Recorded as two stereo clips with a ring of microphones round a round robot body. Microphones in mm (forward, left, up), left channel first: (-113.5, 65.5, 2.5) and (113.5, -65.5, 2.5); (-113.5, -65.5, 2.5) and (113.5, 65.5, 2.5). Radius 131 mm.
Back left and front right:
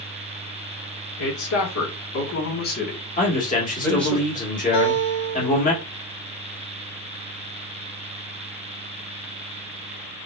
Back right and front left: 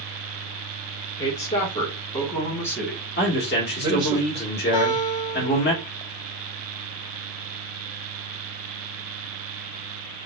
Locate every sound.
1.2 s a woman speaking: 150° left, 2.0 m; by 4.2 s 60° left, 1.3 m
3.2 s a man speaking: 165° right, 1.7 m
4.7 s a guitar: straight behind, 2.5 m